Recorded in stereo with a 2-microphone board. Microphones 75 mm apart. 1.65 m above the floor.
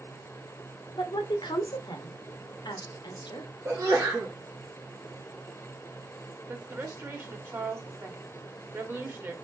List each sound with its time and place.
1.0 s a woman speaking: 85° left, 1.0 m
3.6 s a sneeze: 40° right (ahead or behind), 2 m
6.5 s a woman speaking: 30° right (ahead or behind), 1.1 m